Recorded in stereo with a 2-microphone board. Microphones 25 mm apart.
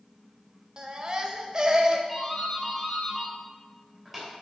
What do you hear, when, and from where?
0.8 s a baby crying: 35° right (ahead or behind), 0.9 m
2.1 s a doorbell: 5° right (ahead or behind), 3 m